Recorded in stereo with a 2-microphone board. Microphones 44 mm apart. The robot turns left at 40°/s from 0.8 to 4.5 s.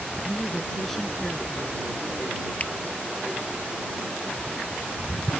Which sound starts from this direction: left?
A finger snap, at 2.6 s.